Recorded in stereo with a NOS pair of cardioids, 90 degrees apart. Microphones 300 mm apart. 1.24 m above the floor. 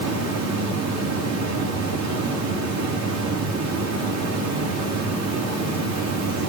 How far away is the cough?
I don't hear a cough.